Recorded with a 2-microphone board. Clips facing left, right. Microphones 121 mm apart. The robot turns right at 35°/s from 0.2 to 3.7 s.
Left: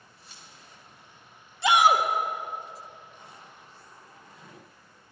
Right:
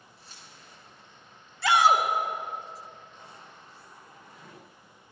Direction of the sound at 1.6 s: 20° left (ahead or behind).